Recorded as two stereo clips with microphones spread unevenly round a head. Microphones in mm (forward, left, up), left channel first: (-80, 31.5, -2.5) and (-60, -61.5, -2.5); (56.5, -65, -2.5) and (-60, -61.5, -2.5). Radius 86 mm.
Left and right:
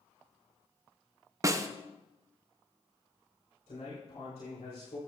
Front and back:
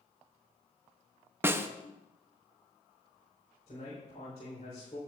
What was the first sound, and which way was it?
A snare drum, 120° right.